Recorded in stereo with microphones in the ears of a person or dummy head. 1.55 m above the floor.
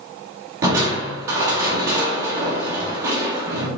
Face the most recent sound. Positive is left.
turn(degrees=-25)  # may be behind; listen again after turning